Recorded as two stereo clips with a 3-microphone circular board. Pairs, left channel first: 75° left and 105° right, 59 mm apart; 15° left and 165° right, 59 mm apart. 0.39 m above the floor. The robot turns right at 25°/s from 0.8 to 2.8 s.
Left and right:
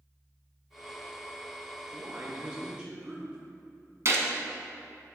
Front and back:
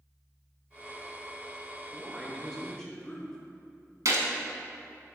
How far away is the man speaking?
About 1.0 m.